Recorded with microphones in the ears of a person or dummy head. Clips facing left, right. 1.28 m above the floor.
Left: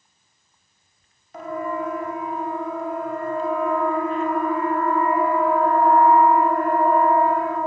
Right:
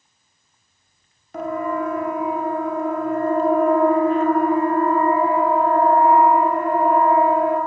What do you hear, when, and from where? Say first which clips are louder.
1.3 s a siren: right 4 dB; 50° right (ahead or behind), 3.5 m; by 7.6 s 10° right (ahead or behind), 5.5 m